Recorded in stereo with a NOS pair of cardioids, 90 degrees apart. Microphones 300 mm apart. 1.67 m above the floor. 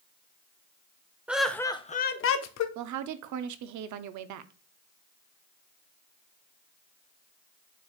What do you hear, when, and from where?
1.3 s laughter: 5° right, 0.8 m; by 2.6 s 65° left, 0.7 m
2.8 s a woman speaking: 70° right, 0.6 m